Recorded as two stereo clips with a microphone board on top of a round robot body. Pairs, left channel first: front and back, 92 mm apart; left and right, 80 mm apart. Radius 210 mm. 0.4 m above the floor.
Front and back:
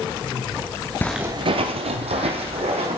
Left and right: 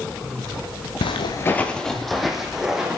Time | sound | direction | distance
1.0 | footsteps | 70° left | 0.6 m